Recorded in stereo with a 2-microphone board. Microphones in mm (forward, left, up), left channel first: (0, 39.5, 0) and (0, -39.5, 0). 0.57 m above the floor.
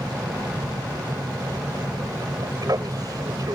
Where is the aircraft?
50° right (ahead or behind).